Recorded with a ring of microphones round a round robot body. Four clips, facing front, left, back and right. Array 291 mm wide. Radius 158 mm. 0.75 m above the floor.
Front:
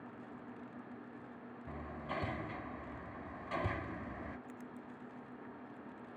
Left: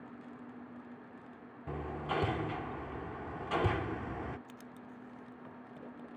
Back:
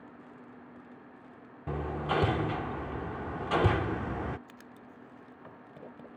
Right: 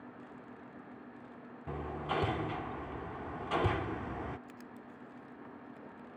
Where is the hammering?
Straight behind.